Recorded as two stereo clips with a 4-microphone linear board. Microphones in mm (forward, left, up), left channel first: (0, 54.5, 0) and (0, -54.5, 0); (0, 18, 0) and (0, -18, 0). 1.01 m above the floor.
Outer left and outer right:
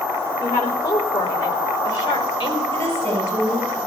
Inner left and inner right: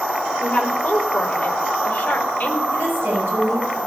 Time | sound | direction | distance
0.4 | a woman speaking | 25° left (ahead or behind) | 4 m
2.7 | a woman speaking | 55° right (ahead or behind) | 7.5 m